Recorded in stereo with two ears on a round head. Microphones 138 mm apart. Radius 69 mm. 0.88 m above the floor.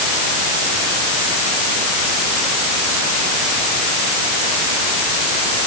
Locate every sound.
Only background noise.